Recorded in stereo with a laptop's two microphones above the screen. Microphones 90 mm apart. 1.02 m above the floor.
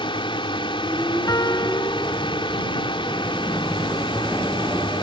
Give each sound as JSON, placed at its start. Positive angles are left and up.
{"t": 0.0, "sound": "a drone", "side_deg": 70}
{"t": 1.3, "sound": "a piano", "side_deg": 45}